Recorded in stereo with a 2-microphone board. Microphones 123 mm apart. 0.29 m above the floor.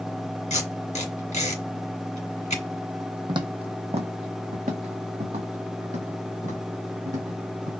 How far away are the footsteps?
About 0.8 m.